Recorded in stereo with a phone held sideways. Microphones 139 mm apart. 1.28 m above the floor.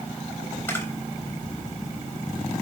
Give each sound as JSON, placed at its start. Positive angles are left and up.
{"t": 0.7, "sound": "a camera shutter", "side_deg": 15, "distance_m": 3.5}